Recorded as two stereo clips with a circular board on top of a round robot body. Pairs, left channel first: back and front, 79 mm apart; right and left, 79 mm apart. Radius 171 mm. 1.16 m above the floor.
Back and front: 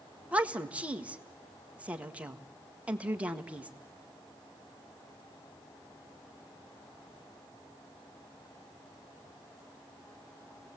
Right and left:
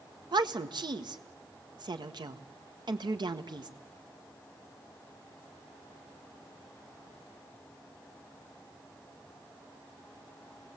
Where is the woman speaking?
75° left, 1.6 m.